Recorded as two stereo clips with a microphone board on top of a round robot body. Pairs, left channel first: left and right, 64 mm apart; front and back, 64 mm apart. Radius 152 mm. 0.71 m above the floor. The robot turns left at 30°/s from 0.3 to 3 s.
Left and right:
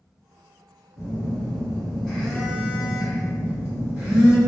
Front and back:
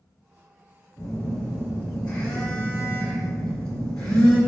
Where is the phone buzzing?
45° left, 1.0 m; by 4.4 s 15° right, 1.0 m.